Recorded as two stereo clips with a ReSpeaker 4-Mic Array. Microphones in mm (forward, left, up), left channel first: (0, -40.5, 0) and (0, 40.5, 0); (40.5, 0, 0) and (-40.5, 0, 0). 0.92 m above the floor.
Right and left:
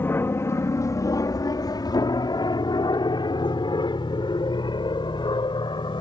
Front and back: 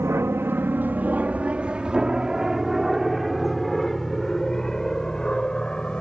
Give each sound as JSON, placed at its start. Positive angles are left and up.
{"t": 0.0, "sound": "an aircraft", "azimuth_deg": -140}